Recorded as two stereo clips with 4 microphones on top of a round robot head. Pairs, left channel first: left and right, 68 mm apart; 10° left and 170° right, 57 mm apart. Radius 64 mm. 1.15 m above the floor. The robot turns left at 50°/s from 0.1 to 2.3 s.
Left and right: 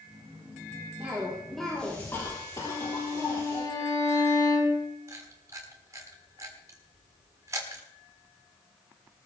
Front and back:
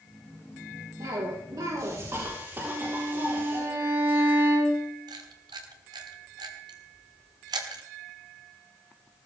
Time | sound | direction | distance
1.0 | a cough | 155° right | 4 m
2.6 | a violin | 140° left | 6 m
5.1 | a camera shutter | 150° right | 1.5 m